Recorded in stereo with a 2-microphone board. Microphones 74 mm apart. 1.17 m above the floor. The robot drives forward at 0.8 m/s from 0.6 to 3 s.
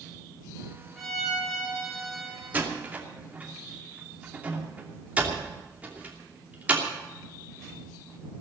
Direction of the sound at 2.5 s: 25° right (ahead or behind).